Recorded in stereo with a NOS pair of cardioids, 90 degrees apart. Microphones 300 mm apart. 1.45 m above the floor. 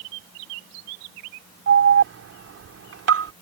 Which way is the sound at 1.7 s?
50° right.